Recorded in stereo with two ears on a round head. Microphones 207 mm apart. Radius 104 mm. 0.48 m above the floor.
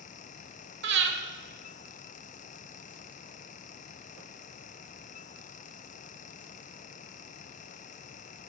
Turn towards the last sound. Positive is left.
turn(degrees=-50)  # may be behind; listen again after turning